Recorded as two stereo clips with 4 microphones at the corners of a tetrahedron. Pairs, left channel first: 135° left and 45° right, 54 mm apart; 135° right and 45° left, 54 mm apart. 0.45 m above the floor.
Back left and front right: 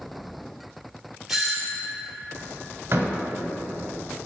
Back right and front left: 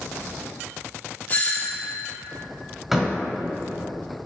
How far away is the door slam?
About 1.3 m.